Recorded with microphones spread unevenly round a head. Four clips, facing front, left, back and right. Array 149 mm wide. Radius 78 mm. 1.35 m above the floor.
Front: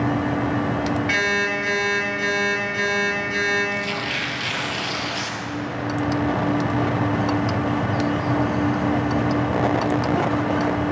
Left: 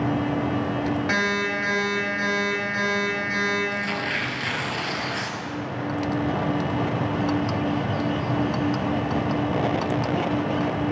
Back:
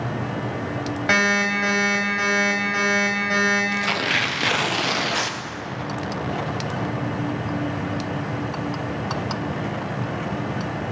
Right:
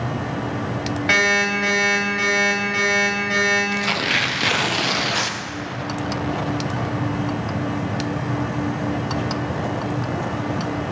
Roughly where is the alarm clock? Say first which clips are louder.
Right 4 dB, back 2 dB; behind.